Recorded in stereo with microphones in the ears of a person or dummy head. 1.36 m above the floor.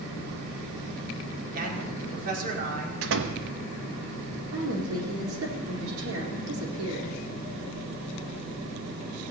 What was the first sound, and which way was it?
A man speaking, 50° right (ahead or behind).